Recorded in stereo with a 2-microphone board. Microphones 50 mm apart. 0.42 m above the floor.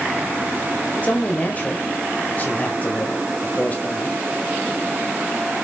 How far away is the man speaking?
About 1.5 m.